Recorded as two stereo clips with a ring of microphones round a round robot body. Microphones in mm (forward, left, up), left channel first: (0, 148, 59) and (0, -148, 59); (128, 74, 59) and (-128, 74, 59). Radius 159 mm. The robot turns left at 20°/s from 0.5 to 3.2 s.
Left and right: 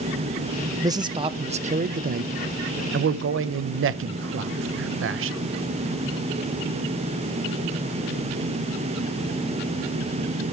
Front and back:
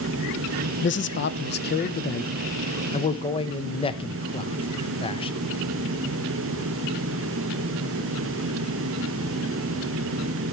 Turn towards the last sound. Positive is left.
turn(degrees=-60)